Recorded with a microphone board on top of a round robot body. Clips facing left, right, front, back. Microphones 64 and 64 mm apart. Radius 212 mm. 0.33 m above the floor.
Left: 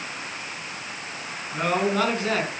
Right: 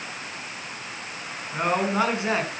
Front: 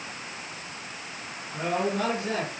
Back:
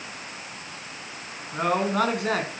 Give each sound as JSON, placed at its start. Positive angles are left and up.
{"t": 1.5, "sound": "a man speaking", "azimuth_deg": -160, "distance_m": 4.5}